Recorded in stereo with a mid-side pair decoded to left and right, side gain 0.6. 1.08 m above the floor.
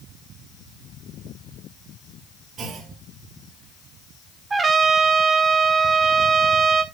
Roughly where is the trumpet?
Ahead right.